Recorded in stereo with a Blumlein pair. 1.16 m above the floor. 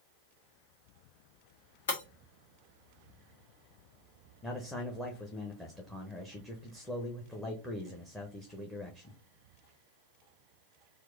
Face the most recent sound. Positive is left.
turn(degrees=10)